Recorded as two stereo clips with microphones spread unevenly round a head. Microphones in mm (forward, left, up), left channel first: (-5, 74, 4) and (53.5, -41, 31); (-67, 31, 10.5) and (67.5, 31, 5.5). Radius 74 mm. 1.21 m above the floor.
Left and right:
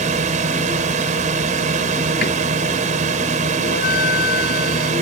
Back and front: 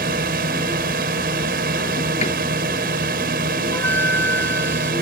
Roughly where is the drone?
Ahead right.